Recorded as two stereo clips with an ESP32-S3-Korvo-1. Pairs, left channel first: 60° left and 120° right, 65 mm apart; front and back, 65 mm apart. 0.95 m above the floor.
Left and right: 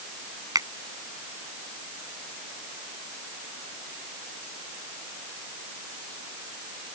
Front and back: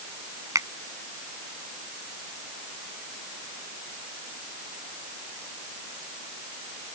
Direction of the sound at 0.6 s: 145° right.